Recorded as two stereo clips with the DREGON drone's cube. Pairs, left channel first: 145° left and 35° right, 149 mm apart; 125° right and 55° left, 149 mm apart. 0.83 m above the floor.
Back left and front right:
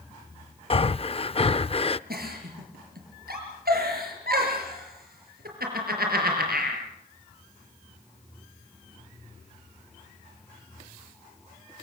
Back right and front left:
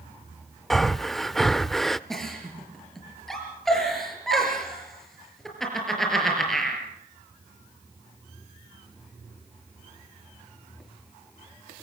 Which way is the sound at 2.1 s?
35° right.